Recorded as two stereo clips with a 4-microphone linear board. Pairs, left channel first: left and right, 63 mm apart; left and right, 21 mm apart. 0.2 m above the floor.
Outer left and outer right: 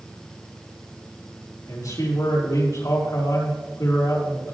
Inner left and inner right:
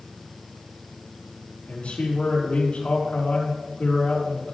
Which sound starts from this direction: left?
A man speaking, at 1.7 s.